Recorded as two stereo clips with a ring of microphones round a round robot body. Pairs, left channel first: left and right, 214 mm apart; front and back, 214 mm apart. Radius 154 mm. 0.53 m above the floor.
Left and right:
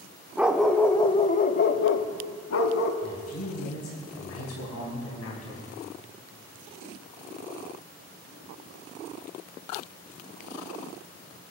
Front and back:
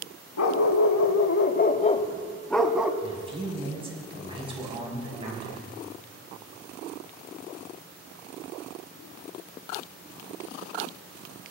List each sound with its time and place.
0.4 s a dog barking: 5° right, 0.8 m; by 2.9 s 95° left, 0.9 m
3.0 s a man speaking: 115° left, 4.5 m